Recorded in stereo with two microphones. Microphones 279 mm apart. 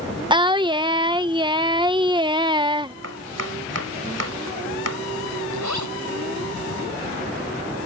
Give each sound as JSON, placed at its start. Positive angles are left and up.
{"t": 0.3, "sound": "singing", "side_deg": -15}
{"t": 3.0, "sound": "chopping", "side_deg": -60}
{"t": 5.5, "sound": "a zipper", "side_deg": -90}